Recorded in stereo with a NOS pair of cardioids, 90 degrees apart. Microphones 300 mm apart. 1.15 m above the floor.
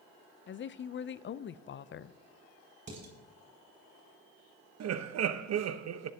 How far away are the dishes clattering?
About 6.5 m.